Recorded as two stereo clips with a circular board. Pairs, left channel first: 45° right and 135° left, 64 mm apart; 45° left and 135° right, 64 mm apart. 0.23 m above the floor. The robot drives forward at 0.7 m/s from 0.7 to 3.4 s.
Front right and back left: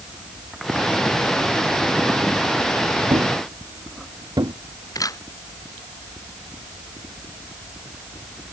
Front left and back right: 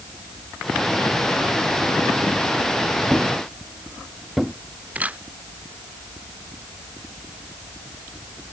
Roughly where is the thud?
Behind left.